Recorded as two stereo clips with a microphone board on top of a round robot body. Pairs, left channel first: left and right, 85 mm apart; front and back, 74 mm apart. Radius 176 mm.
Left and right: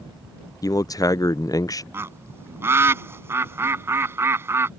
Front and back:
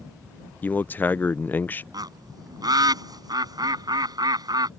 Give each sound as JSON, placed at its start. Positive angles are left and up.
{"t": 0.6, "sound": "a man speaking", "azimuth_deg": 55}
{"t": 1.9, "sound": "a bird", "azimuth_deg": -150}